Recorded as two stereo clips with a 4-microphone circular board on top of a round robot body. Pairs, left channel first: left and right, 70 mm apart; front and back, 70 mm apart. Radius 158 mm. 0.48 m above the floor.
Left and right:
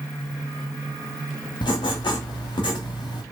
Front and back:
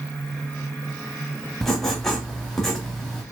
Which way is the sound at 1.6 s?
85° left.